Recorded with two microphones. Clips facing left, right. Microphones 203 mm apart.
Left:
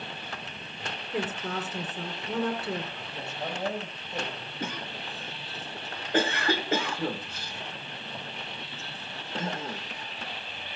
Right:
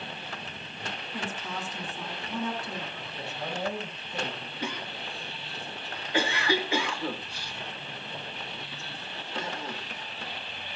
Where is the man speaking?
40° left (ahead or behind), 9.5 m.